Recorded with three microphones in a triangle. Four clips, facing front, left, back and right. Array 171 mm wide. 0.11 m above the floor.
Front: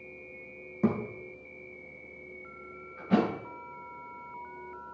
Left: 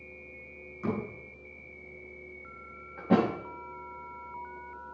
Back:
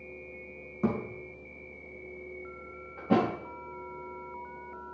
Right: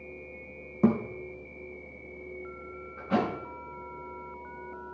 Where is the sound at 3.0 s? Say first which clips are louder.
Left 3 dB, back 1 dB; 130° left, 5.5 m.